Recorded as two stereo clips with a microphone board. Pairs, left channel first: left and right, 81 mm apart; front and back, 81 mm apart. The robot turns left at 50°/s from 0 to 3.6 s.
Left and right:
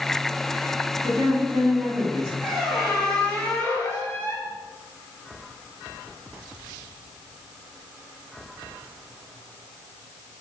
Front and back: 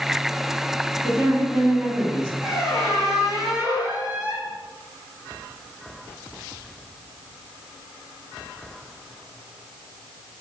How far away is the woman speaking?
About 1.4 m.